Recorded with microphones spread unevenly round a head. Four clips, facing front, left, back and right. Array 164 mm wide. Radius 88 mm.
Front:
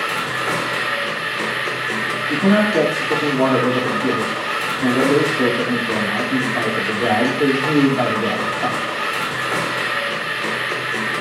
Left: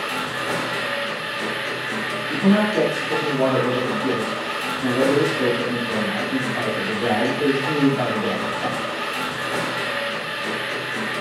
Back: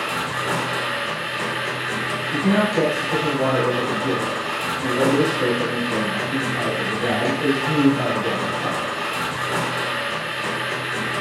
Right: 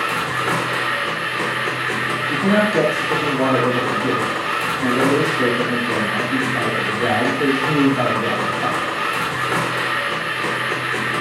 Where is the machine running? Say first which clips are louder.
Right 5 dB, front 2 dB; 60° right, 5.5 m.